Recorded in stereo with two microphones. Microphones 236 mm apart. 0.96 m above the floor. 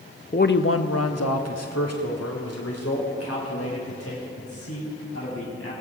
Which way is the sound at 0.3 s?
30° left (ahead or behind).